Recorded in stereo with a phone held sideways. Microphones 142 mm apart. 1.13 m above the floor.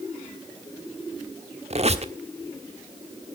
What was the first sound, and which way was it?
A squeak, 50° right (ahead or behind).